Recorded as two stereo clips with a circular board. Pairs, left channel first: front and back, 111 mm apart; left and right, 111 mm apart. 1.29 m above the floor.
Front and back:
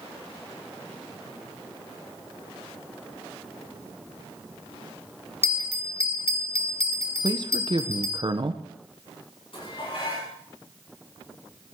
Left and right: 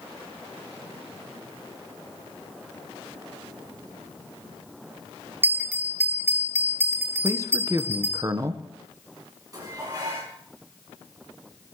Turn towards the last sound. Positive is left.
turn(degrees=-35)